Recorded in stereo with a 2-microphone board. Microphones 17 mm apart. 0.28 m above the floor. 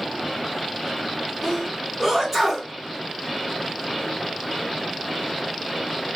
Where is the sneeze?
20° right (ahead or behind), 2.5 m.